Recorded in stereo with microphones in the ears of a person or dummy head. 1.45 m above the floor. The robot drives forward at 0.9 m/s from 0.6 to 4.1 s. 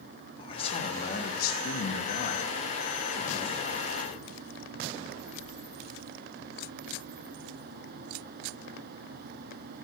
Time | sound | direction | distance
0.4 | a man speaking | 25° left (ahead or behind) | 1.3 m